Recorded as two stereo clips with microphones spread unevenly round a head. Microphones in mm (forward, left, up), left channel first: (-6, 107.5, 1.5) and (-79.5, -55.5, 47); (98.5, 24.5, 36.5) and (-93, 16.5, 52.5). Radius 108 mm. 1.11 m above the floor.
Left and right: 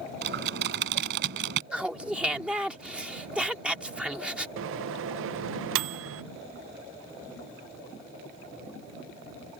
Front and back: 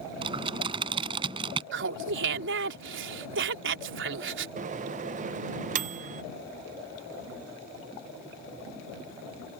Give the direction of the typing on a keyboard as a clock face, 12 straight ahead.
4 o'clock.